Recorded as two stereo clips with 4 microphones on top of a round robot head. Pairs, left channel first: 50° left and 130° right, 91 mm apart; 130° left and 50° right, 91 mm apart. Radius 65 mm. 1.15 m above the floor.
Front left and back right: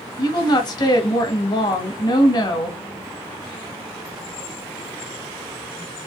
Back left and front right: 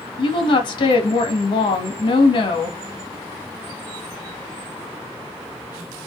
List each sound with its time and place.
0.2 s a woman speaking: 95° left, 1.8 m